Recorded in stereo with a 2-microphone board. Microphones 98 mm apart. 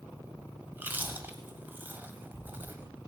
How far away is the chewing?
About 1.4 m.